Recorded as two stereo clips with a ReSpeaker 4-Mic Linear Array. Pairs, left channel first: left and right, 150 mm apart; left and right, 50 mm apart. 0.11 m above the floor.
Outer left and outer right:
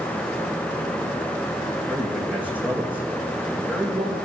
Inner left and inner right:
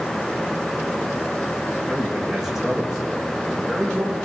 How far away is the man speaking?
About 6 m.